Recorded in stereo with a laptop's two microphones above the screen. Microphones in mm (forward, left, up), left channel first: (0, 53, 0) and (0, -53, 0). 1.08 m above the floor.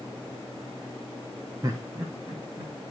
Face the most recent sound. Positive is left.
turn(degrees=-45)  # may be behind; listen again after turning